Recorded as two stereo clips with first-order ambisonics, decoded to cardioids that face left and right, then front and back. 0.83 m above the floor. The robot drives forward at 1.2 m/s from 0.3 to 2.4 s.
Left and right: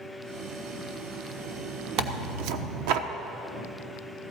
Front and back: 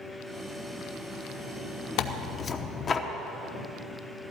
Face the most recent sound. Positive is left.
turn(degrees=-70)